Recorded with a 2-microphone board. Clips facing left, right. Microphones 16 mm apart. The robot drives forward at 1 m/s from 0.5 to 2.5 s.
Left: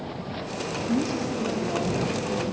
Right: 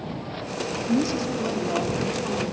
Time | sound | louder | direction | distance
0.9 | a woman speaking | right 3 dB | 45° right (ahead or behind) | 0.7 m